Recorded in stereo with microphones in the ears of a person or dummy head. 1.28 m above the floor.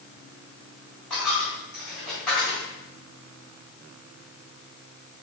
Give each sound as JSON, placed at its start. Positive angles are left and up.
{"t": 1.1, "sound": "a dropped coin", "side_deg": 0, "distance_m": 0.9}